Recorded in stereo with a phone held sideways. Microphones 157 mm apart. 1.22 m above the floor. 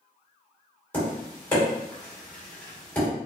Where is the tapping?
10° left (ahead or behind), 1.8 m.